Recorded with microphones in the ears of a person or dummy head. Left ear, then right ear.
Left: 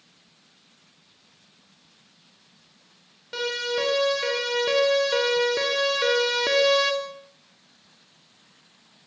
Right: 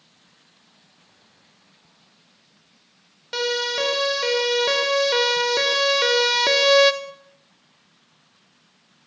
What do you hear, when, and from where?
3.3 s a siren: 35° right (ahead or behind), 7 m; by 6.9 s 30° right (ahead or behind), 2 m